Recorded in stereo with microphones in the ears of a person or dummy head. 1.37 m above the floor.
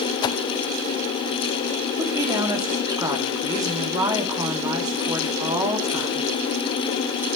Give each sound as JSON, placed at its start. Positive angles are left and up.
{"t": 0.2, "sound": "a whoosh", "side_deg": 25, "distance_m": 0.6}
{"t": 2.0, "sound": "a woman speaking", "side_deg": -20, "distance_m": 2.5}